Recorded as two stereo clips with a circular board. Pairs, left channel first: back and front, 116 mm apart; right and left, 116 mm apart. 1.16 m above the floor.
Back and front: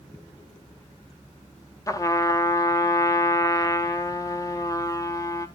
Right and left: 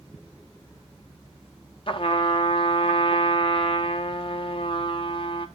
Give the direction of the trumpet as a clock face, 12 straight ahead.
4 o'clock.